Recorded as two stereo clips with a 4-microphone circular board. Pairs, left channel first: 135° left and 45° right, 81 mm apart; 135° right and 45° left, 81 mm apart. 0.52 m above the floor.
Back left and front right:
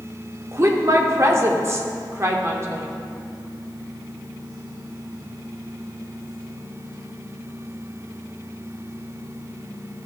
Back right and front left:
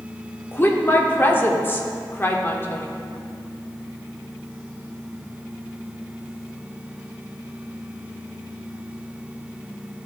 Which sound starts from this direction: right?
A woman speaking, at 0.5 s.